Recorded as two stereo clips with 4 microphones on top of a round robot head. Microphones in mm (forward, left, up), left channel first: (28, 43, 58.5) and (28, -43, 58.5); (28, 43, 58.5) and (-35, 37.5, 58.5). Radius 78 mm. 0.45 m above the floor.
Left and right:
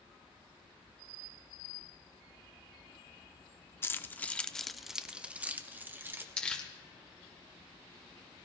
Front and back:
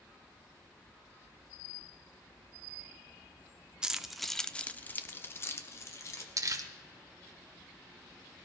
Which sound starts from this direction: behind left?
Keys jangling, at 3.8 s.